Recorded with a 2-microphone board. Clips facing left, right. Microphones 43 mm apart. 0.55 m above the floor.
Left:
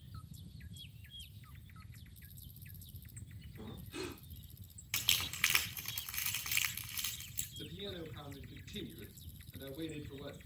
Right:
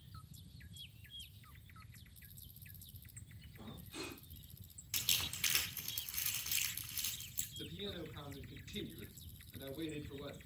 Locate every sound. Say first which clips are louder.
3.6 s breathing: left 4 dB; 15° left (ahead or behind), 5 m
4.9 s crumpling: left 4 dB; 50° left (ahead or behind), 2.5 m
7.6 s a man speaking: left 1 dB; 15° right (ahead or behind), 5 m